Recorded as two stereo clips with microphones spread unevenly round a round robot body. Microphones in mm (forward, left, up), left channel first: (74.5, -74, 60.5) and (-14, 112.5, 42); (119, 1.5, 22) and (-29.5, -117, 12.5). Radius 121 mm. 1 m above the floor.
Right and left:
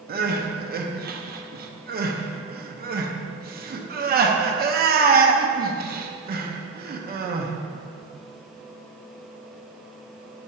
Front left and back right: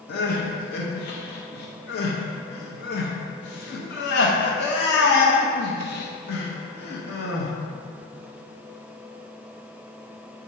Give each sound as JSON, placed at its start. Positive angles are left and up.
{"t": 0.1, "sound": "crying", "azimuth_deg": 80, "distance_m": 0.8}